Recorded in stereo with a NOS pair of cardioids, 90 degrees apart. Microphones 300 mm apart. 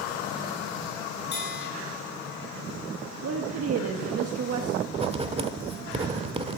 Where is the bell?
35° left, 6 m.